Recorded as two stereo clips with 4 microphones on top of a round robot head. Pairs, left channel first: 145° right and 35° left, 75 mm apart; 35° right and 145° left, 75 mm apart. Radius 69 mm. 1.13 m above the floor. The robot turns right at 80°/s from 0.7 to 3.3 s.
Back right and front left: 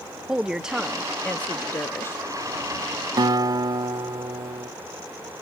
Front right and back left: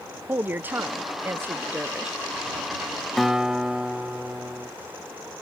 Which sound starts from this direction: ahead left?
A guitar, at 3.2 s.